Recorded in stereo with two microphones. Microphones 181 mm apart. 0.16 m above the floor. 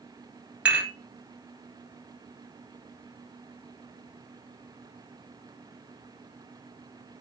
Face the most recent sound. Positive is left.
turn(degrees=-5)  # may be behind; listen again after turning